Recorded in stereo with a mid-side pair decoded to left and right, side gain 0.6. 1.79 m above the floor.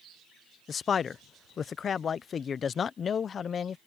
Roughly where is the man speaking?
Ahead left.